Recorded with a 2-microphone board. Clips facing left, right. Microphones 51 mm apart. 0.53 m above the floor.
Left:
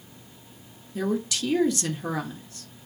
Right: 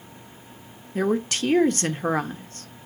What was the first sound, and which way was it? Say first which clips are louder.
A woman speaking: right 4 dB; 45° right (ahead or behind).